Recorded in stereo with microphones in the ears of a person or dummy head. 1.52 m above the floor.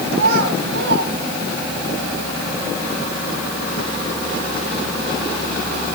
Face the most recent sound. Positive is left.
turn(degrees=-60)  # may be behind; listen again after turning